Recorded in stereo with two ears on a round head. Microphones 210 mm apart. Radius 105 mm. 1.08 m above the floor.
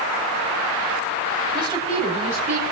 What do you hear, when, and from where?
1.5 s a woman speaking: 20° right (ahead or behind), 5.5 m; by 2.6 s 35° right (ahead or behind), 5.5 m